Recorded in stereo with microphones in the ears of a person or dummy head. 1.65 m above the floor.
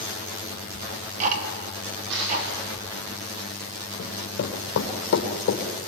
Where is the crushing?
70° right (ahead or behind), 8 m.